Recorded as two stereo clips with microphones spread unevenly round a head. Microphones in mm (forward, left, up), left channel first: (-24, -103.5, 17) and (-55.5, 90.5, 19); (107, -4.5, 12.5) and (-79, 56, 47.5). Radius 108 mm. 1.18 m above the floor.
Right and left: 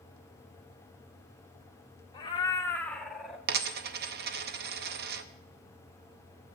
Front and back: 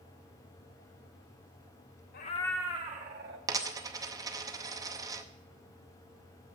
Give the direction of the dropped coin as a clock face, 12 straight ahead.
8 o'clock.